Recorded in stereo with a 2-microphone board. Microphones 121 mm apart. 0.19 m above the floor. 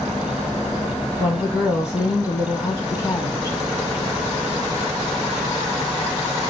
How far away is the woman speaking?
About 1.3 m.